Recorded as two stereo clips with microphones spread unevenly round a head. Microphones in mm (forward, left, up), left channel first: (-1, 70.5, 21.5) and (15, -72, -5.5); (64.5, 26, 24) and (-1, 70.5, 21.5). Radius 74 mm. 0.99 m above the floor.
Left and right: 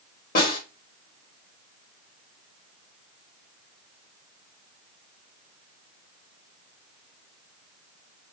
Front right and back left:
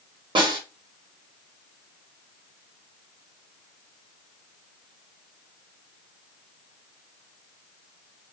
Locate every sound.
0.3 s a snare drum: 130° left, 1.6 m